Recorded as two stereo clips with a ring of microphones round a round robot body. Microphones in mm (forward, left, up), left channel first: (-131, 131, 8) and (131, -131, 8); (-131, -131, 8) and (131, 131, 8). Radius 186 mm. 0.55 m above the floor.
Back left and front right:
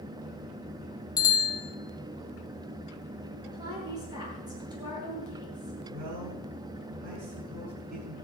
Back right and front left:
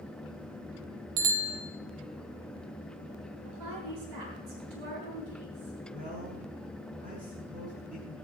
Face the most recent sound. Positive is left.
turn(degrees=-25)